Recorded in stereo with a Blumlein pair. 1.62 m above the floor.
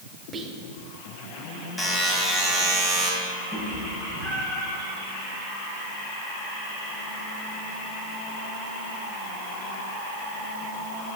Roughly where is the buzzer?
Ahead.